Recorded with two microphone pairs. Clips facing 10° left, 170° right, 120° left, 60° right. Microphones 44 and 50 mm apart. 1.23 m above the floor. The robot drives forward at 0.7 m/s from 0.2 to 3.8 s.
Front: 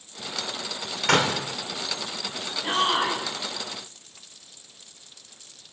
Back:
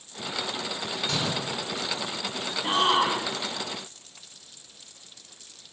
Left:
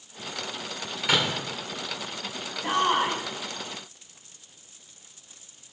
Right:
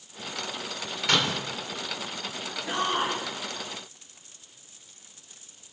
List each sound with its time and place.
1.1 s a door slam: 35° left, 3.5 m; by 1.5 s 40° left, 3.5 m
2.6 s a shout: 115° left, 9 m